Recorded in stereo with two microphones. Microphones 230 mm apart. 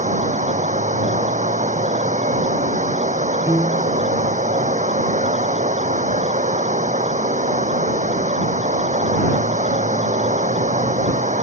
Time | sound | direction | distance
0.0 | running water | 35° right (ahead or behind) | ?
3.5 | a piano | 10° right (ahead or behind) | ?